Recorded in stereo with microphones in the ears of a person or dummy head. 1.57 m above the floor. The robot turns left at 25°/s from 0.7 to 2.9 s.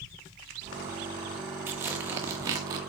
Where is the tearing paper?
15° right (ahead or behind), 1.2 m; by 2.8 s 25° right (ahead or behind), 1.2 m.